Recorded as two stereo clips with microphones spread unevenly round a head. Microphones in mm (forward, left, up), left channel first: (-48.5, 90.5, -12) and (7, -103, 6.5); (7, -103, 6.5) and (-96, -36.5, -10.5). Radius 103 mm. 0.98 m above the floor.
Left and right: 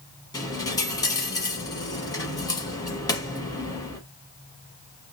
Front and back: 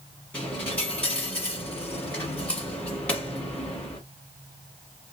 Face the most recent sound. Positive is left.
turn(degrees=35)